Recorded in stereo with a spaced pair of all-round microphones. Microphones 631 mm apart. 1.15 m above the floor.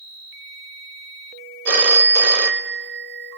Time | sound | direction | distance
1.6 | a phone ringing | 65° right (ahead or behind) | 1.2 m